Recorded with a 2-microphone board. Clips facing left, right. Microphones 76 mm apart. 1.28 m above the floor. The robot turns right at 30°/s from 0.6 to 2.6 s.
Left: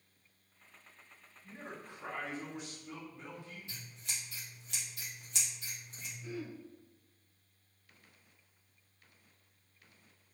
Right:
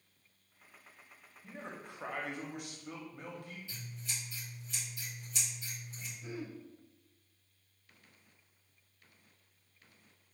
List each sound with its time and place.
1.4 s a man speaking: 100° right, 0.9 m; by 3.6 s 65° right, 0.9 m
3.7 s scissors: 70° left (ahead or behind), 1.5 m
6.2 s throat clearing: 20° right (ahead or behind), 0.5 m